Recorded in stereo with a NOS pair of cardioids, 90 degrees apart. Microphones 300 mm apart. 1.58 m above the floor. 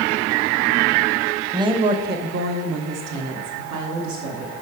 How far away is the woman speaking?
About 1.1 m.